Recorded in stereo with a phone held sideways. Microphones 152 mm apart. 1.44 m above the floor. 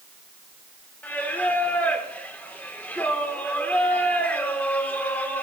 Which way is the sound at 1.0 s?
10° left (ahead or behind).